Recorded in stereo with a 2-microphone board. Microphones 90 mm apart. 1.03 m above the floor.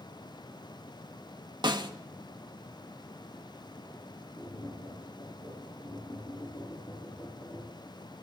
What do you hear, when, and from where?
1.6 s a snare drum: 60° right (ahead or behind), 1.6 m
4.4 s tapping: 60° left (ahead or behind), 9.5 m